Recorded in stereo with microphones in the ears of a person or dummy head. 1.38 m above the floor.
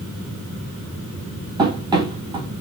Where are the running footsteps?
15° right (ahead or behind), 2.5 m.